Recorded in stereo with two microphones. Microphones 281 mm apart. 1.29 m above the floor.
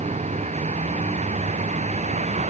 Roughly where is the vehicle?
Right.